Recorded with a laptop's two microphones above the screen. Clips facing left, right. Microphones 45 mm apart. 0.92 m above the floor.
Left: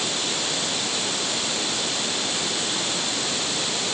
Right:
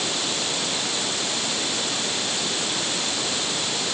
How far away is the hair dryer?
No hair dryer in this recording.